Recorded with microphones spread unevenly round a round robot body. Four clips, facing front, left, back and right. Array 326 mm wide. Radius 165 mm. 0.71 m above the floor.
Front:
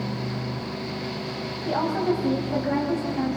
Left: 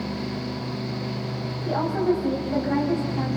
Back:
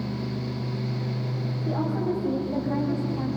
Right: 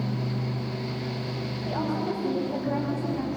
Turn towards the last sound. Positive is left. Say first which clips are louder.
# left 6 dB, front 4 dB
turn(degrees=35)